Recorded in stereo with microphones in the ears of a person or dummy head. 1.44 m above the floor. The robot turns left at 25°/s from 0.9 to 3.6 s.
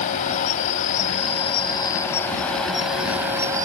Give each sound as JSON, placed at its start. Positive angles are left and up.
{"t": 0.0, "sound": "an insect", "azimuth_deg": 45}